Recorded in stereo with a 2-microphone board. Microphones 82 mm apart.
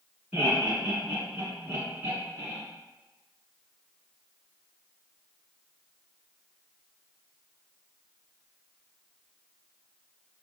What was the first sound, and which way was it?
Laughter, 25° right (ahead or behind).